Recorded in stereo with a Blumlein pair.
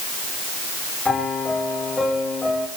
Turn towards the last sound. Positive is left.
turn(degrees=10)